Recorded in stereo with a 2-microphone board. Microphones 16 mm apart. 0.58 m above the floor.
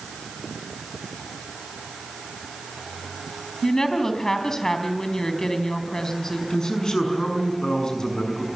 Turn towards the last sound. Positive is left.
turn(degrees=50)  # may be behind; listen again after turning